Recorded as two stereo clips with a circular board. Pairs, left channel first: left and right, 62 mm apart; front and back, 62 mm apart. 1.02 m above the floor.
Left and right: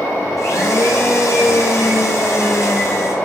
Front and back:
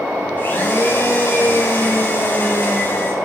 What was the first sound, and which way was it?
A blender, 60° left.